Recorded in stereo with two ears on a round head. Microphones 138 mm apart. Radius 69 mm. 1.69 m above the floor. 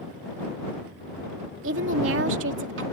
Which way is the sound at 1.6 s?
85° right.